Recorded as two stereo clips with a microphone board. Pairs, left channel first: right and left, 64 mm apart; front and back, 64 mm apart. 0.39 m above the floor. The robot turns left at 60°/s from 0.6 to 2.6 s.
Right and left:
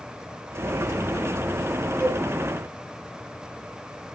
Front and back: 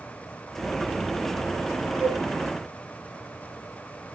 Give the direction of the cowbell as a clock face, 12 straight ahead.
4 o'clock.